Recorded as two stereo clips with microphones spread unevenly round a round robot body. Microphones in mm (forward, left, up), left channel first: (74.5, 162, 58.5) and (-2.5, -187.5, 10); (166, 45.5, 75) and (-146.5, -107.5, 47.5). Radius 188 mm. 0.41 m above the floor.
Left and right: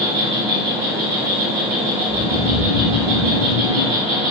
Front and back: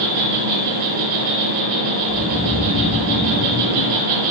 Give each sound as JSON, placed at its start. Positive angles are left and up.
{"t": 0.0, "sound": "an insect", "azimuth_deg": 175, "distance_m": 5.0}
{"t": 2.0, "sound": "snoring", "azimuth_deg": 95, "distance_m": 1.3}